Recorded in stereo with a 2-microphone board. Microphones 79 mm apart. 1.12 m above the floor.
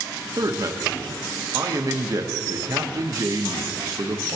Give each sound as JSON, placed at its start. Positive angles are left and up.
{"t": 0.4, "sound": "a man speaking", "side_deg": -50, "distance_m": 1.0}